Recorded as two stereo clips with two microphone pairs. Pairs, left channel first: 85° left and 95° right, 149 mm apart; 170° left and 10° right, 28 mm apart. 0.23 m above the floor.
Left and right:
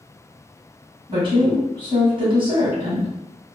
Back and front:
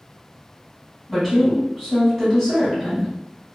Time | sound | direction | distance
1.1 | a woman speaking | 125° right | 1.5 m